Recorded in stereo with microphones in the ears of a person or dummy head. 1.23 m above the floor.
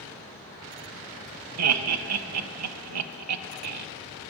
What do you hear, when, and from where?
1.6 s laughter: 85° right, 0.6 m